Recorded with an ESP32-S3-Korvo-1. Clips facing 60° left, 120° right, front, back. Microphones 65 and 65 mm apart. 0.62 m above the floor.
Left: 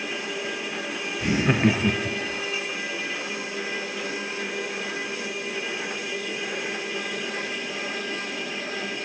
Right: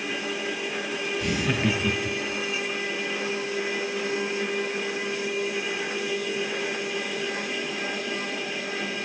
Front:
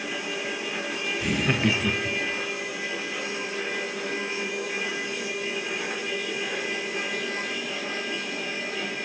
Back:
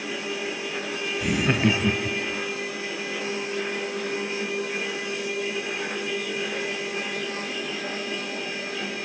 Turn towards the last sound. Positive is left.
turn(degrees=110)